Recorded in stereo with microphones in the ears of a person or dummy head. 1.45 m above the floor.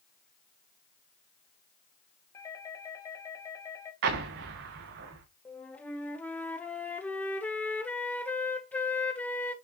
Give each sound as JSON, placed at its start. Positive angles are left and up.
{"t": 2.3, "sound": "a doorbell", "side_deg": 20, "distance_m": 1.6}
{"t": 4.0, "sound": "an explosion", "side_deg": -55, "distance_m": 0.9}
{"t": 5.5, "sound": "a flute", "side_deg": 5, "distance_m": 0.8}